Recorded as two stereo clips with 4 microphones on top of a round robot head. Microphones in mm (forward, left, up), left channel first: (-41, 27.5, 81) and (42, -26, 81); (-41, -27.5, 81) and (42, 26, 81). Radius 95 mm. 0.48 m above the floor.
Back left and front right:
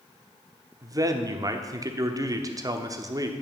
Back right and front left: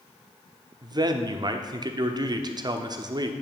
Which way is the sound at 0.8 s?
10° left.